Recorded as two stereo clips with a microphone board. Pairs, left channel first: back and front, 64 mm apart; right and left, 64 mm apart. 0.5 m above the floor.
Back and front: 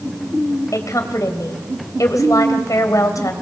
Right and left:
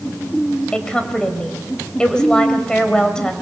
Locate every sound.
0.7 s a woman speaking: 165° right, 3 m